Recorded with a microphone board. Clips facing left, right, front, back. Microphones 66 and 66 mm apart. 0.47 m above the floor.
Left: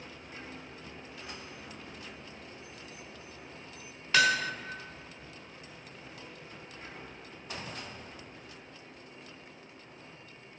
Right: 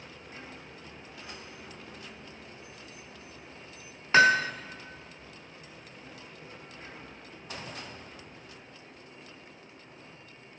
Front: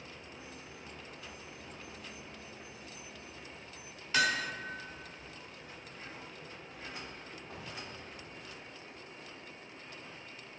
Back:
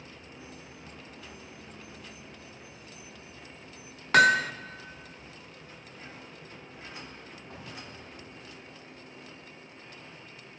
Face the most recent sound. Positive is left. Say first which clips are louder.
# right 5 dB, back 10 dB
turn(degrees=-145)